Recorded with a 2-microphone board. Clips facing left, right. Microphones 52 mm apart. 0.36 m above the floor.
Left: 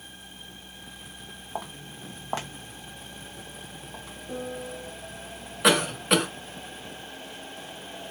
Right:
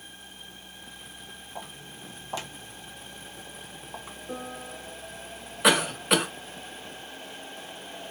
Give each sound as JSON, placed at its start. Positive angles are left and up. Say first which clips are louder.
{"t": 1.6, "sound": "footsteps", "louder": "left 6 dB", "side_deg": 60, "distance_m": 1.1}
{"t": 4.3, "sound": "a piano", "louder": "left 3 dB", "side_deg": -5, "distance_m": 1.3}
{"t": 5.6, "sound": "a cough", "louder": "even", "side_deg": 0, "distance_m": 0.9}